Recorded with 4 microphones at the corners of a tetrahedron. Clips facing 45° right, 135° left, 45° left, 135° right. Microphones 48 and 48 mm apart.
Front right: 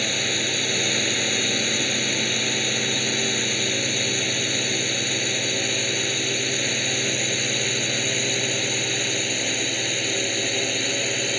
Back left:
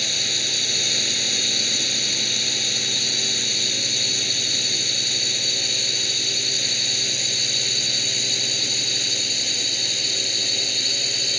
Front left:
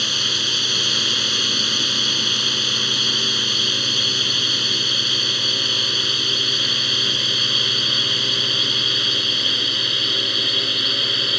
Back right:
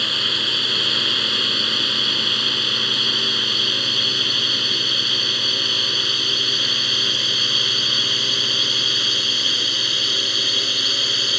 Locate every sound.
0.0 s a drone: 65° right; by 11.4 s 35° right